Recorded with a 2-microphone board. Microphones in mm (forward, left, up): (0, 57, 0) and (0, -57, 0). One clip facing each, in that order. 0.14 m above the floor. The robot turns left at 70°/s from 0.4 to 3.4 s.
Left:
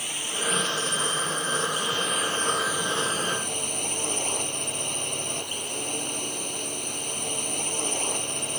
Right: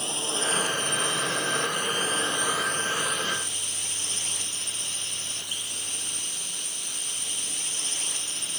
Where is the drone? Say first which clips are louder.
Right 2 dB; 25° right; by 8.6 s 125° left.